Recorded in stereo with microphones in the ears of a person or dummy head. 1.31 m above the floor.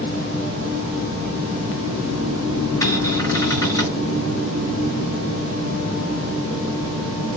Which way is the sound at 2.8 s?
20° left (ahead or behind).